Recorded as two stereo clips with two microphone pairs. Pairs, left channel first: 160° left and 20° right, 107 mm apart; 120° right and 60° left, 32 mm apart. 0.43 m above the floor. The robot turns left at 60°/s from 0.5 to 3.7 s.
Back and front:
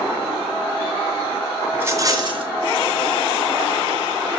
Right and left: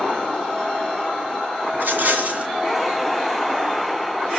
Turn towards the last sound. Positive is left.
turn(degrees=-65)